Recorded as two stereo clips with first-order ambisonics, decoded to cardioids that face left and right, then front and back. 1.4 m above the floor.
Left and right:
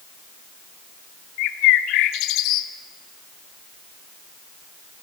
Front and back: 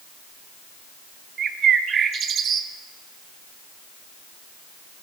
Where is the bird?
120° left, 0.6 m.